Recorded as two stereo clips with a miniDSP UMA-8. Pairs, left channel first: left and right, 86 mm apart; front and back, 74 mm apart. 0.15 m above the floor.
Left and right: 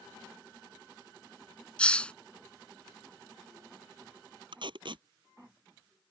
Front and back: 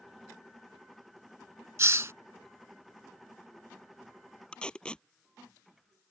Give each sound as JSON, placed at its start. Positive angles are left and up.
{"t": 1.8, "sound": "a hiss", "azimuth_deg": 160}
{"t": 4.5, "sound": "tape being pulled", "azimuth_deg": -75}